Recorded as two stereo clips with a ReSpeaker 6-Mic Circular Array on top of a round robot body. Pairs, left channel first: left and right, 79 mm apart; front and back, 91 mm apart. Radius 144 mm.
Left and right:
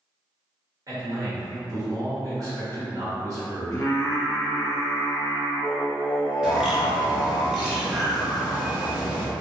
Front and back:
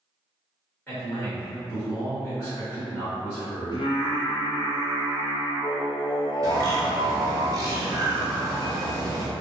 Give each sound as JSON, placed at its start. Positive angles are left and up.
{"t": 0.9, "sound": "a man speaking", "azimuth_deg": -70, "distance_m": 1.5}
{"t": 3.7, "sound": "singing", "azimuth_deg": 30, "distance_m": 0.7}
{"t": 6.4, "sound": "a bird", "azimuth_deg": -165, "distance_m": 1.0}